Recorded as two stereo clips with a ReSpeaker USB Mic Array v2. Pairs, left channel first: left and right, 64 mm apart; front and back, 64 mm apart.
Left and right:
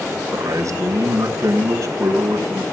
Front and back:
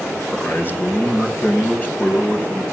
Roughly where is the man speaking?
Ahead right.